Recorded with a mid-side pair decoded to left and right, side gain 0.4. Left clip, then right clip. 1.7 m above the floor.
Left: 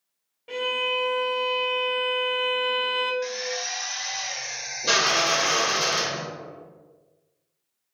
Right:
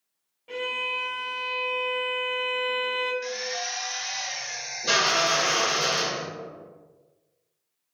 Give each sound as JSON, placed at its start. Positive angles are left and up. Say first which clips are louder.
{"t": 0.5, "sound": "a violin", "louder": "left 3 dB", "azimuth_deg": 40, "distance_m": 0.8}
{"t": 3.2, "sound": "a drill", "louder": "left 1 dB", "azimuth_deg": 30, "distance_m": 0.8}